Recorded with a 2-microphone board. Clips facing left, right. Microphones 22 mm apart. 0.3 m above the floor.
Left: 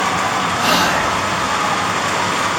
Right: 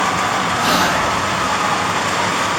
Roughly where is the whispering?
Centre.